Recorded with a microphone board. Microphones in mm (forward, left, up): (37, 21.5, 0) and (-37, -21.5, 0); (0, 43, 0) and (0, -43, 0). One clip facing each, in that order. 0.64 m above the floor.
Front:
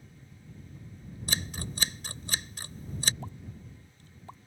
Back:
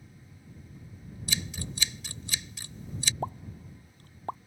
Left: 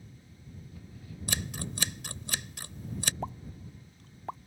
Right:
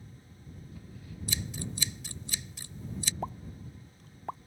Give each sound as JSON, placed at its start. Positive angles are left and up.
{"t": 1.3, "sound": "scissors", "azimuth_deg": 75}
{"t": 3.2, "sound": "a pop", "azimuth_deg": 180}